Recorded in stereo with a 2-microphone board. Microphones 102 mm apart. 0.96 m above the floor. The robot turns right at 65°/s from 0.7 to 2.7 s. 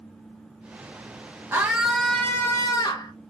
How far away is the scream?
About 0.7 m.